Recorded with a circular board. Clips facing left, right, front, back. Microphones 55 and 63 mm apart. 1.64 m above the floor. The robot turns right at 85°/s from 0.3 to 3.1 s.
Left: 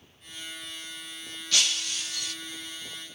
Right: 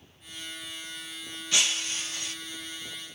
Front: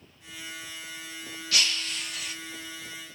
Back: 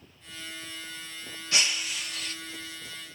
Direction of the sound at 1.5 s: 140° right.